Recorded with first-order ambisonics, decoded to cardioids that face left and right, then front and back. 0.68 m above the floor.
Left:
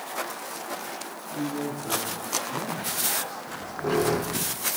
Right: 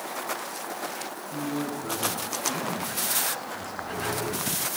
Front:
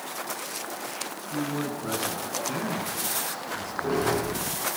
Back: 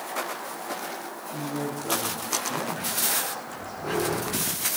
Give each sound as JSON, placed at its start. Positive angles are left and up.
{"t": 1.3, "sound": "a man speaking", "azimuth_deg": -20, "distance_m": 8.5}
{"t": 3.5, "sound": "a squeak", "azimuth_deg": 70, "distance_m": 6.5}